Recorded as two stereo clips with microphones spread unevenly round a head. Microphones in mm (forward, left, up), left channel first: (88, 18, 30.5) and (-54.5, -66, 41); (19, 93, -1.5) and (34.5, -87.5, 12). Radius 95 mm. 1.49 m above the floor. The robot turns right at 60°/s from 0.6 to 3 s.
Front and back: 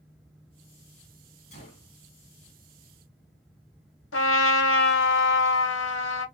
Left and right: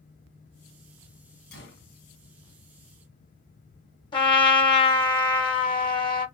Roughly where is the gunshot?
Left.